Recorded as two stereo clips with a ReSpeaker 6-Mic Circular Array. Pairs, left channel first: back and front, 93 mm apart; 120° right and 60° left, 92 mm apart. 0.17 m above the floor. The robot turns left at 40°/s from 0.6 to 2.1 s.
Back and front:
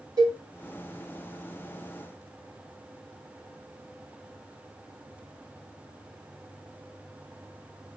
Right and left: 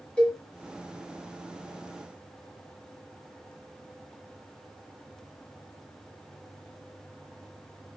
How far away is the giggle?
No giggle in this recording.